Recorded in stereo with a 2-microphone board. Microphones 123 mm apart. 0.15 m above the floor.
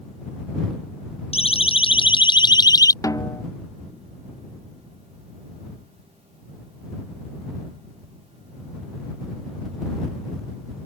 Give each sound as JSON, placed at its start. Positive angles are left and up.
{"t": 1.3, "sound": "a siren", "side_deg": 55}
{"t": 3.0, "sound": "a snare drum", "side_deg": 30}